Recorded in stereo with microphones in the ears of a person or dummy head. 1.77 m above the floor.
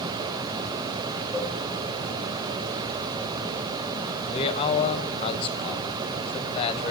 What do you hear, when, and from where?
1.3 s a cowbell: centre (ahead or behind), 1.8 m
4.3 s a man speaking: 35° left (ahead or behind), 0.9 m